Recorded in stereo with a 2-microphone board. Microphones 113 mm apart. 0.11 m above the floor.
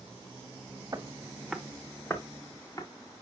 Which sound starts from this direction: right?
Footsteps, at 0.9 s.